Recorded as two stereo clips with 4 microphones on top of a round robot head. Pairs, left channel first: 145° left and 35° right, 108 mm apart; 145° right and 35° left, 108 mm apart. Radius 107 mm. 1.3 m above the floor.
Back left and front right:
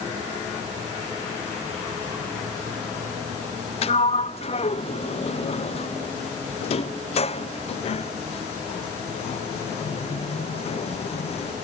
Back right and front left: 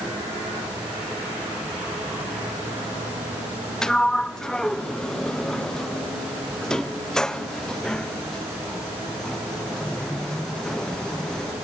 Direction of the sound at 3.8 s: 135° left.